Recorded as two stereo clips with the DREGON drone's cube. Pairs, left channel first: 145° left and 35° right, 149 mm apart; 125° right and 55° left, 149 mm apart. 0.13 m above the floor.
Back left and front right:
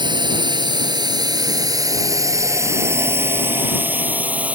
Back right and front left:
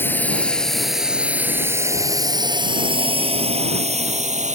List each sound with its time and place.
0.0 s a drone: 60° right; by 4.6 s 45° left